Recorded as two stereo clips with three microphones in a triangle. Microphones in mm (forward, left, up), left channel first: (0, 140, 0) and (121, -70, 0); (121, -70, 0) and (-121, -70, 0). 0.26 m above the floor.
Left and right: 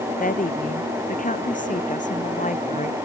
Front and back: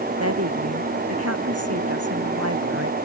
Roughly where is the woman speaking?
Behind.